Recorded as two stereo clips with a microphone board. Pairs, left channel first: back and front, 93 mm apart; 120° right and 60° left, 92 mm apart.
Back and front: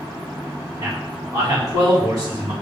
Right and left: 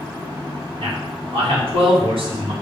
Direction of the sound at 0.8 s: 45° left.